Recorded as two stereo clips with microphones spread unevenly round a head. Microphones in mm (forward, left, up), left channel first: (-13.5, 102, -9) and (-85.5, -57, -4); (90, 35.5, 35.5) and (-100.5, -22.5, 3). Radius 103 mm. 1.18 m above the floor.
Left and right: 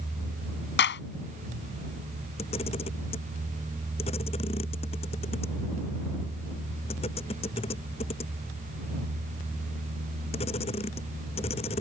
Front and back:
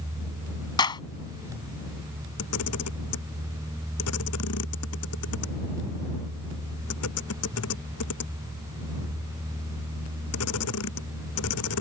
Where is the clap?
85° left.